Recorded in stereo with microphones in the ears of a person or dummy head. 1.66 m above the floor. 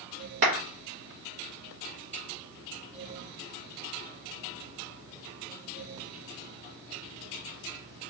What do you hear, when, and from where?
0.4 s a clap: 50° right (ahead or behind), 1.1 m